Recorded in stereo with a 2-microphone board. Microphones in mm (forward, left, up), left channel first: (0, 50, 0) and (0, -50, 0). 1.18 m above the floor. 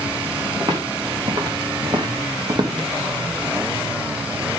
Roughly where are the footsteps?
Right.